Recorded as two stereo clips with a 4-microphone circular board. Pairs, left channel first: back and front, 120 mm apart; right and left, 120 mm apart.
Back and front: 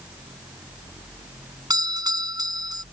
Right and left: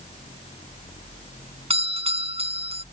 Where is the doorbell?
55° left.